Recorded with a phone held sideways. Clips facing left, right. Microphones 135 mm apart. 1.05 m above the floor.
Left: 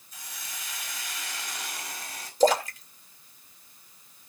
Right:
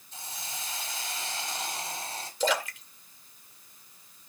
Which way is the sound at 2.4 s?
45° left (ahead or behind).